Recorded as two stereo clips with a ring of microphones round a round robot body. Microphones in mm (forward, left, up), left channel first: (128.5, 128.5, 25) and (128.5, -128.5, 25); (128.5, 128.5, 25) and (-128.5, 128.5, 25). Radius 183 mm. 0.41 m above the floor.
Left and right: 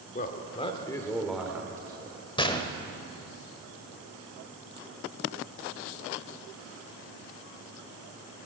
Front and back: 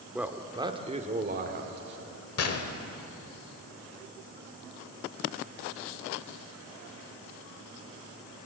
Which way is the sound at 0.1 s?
95° left.